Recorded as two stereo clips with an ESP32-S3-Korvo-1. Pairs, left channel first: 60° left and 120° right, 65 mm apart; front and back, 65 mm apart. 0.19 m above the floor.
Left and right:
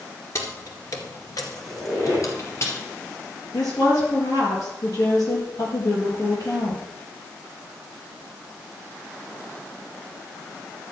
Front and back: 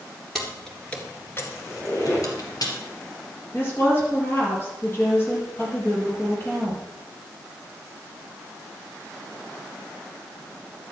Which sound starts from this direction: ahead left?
A woman speaking, at 3.5 s.